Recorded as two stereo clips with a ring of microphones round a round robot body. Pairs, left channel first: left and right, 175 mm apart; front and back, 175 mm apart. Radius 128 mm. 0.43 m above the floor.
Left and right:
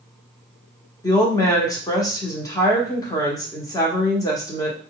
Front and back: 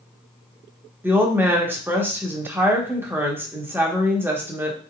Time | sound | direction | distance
1.0 | a woman speaking | 120° left | 1.0 m